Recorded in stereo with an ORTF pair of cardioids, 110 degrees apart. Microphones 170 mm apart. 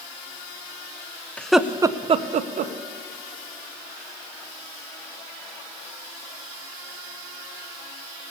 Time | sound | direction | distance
1.4 | laughter | 10° left | 0.7 m